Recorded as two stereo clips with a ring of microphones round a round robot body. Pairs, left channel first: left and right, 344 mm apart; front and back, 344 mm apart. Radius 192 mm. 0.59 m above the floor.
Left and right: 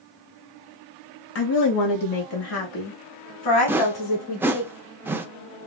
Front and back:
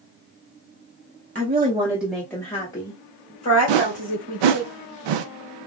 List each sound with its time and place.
1.4 s a woman speaking: 120° left, 0.7 m; by 4.7 s 70° left, 2 m
3.7 s a whoosh: 175° right, 0.5 m